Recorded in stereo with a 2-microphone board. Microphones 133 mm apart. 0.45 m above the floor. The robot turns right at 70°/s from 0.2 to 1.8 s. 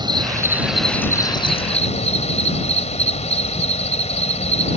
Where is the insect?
40° right; by 4.8 s 70° left.